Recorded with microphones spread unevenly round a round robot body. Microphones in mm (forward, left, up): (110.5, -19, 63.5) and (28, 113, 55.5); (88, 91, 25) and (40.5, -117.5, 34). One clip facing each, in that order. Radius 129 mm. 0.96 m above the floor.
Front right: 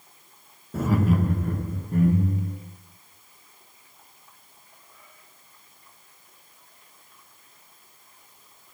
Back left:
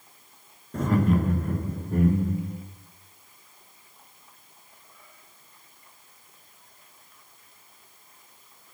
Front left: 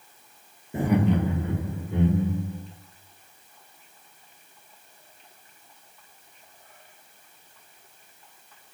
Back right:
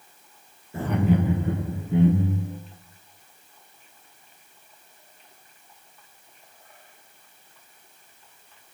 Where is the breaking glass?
I don't hear breaking glass.